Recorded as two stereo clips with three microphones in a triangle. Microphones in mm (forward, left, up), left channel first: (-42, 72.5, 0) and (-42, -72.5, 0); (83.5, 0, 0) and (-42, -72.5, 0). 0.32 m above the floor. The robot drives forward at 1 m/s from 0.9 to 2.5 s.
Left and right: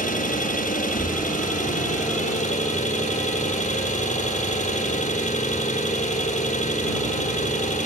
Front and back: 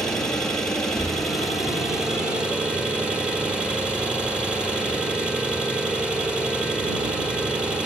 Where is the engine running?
115° left, 7.5 m; by 7.9 s 125° left, 8 m.